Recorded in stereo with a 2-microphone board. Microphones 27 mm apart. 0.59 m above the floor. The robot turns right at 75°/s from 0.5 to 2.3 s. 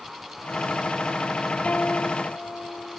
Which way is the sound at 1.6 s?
50° left.